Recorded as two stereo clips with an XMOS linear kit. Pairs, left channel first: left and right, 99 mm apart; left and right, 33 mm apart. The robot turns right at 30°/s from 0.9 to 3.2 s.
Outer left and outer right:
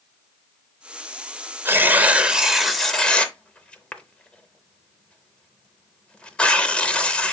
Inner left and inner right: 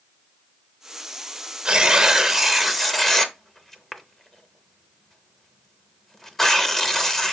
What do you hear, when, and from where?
1.6 s tearing paper: 20° right (ahead or behind), 0.6 m; by 7.3 s 10° left (ahead or behind), 0.6 m